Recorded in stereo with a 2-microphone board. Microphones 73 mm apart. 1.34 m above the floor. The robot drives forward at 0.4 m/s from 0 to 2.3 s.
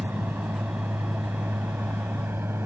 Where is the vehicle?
25° right (ahead or behind); by 2.7 s 30° right (ahead or behind).